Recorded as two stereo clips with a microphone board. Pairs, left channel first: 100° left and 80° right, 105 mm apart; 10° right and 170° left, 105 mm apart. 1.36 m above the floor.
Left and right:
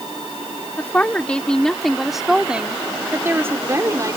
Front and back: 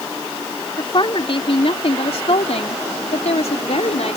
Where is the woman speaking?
30° left; by 4.2 s 20° right.